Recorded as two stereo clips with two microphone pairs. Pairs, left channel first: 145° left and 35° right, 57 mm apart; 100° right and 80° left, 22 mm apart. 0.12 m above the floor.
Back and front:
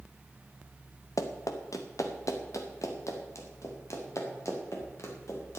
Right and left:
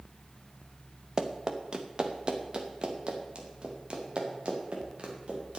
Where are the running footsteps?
140° left, 1.5 m; by 5.6 s 115° left, 4.5 m.